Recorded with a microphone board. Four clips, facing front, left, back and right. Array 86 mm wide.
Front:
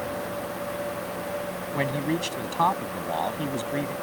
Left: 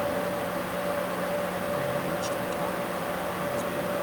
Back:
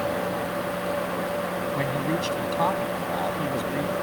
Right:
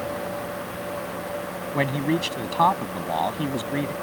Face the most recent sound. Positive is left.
turn(degrees=-80)